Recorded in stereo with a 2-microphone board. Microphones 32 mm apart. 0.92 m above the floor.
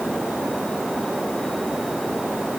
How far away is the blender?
No blender in this recording.